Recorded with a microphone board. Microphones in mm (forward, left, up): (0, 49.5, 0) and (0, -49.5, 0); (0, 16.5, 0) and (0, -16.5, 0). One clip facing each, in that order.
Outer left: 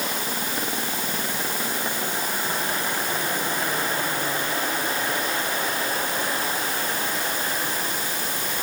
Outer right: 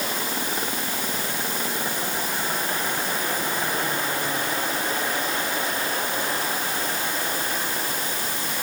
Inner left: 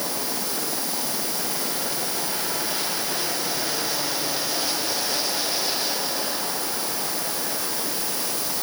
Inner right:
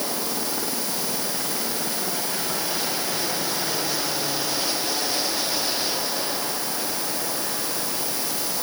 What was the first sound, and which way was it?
Only background noise.